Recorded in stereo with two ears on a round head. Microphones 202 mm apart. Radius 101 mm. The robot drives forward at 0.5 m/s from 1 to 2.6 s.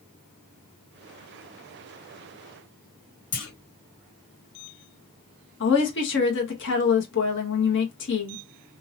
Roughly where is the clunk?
Left.